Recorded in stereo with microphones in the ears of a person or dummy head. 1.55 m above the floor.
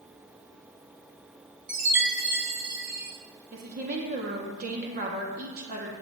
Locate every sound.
1.7 s a chime: 15° right (ahead or behind), 0.9 m
3.5 s a woman speaking: 50° right (ahead or behind), 1.1 m